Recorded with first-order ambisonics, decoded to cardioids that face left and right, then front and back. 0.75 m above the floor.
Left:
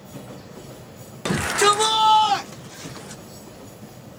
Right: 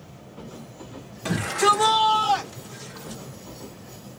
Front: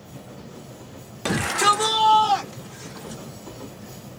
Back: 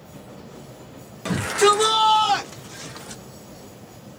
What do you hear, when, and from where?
1.2 s a shout: 60° left, 0.8 m; by 3.2 s 150° left, 1.7 m